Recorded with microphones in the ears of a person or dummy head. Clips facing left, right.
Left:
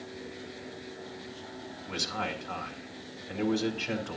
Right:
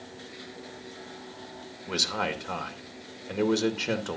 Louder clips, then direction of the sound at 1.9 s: Right 5 dB; 55° right (ahead or behind).